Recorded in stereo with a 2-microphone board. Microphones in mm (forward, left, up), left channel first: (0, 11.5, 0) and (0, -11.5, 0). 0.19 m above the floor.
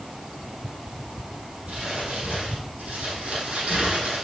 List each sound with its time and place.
1.7 s crumpling: 75° right (ahead or behind), 5 m